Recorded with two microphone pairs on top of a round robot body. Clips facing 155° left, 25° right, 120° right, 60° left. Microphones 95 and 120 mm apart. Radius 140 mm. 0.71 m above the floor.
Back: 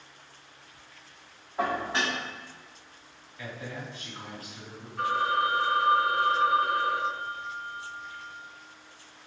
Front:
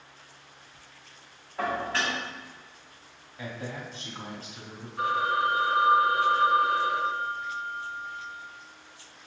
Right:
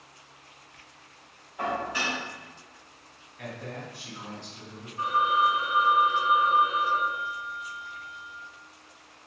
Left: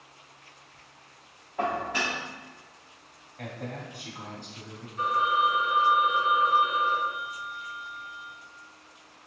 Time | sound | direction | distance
1.6 | dishes clattering | 85° left | 1.8 m
3.4 | a man speaking | 35° left | 2.5 m
5.0 | a phone ringing | 55° left | 2.5 m